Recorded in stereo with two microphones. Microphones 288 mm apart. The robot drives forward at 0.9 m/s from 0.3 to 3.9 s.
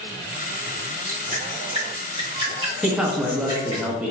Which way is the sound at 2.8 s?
5° right (ahead or behind).